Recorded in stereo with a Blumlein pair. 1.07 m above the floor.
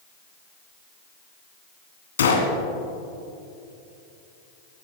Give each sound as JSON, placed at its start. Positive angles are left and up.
{"t": 2.2, "sound": "a gunshot", "azimuth_deg": 65, "distance_m": 2.5}